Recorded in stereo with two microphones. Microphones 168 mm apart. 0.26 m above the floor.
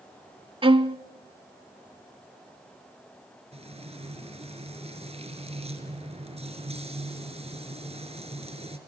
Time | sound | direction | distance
0.6 | a violin | 30° right (ahead or behind) | 0.5 m
3.5 | frying | 35° right (ahead or behind) | 2.5 m